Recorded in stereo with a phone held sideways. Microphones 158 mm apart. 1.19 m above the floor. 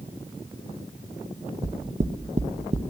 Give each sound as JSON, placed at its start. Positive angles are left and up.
{"t": 1.6, "sound": "knocking", "side_deg": -45, "distance_m": 0.6}